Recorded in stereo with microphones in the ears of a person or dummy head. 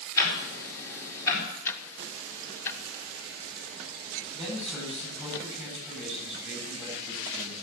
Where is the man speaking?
5° right (ahead or behind), 9.5 m.